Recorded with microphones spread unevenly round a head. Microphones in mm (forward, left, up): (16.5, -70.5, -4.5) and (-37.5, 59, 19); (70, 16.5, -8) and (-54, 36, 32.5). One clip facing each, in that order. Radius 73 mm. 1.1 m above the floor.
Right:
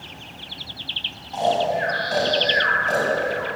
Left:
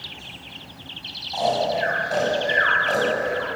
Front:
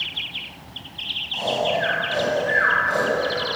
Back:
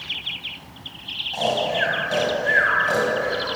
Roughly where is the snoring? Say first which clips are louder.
Right 1 dB, even; behind.